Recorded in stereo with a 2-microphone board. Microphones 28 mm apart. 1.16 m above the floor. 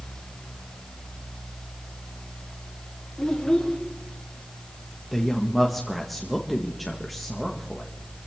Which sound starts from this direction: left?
A child speaking, at 3.2 s.